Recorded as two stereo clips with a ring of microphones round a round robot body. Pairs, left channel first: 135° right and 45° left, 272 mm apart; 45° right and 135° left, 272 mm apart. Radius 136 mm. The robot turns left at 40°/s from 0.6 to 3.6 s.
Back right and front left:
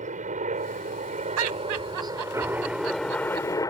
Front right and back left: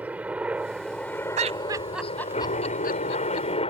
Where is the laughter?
75° left; by 3.5 s 10° right.